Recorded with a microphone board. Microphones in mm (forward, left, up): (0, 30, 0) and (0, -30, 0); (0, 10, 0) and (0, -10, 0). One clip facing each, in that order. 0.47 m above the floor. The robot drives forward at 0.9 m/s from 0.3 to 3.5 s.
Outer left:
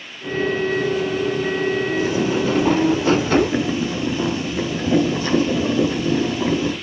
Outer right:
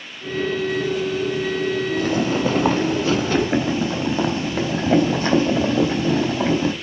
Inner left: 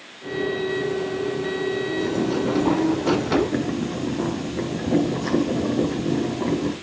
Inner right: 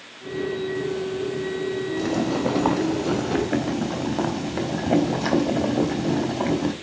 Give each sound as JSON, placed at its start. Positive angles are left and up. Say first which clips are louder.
{"t": 2.0, "sound": "boiling", "louder": "outer left 1 dB, inner right 2 dB", "side_deg": -65, "distance_m": 3.0}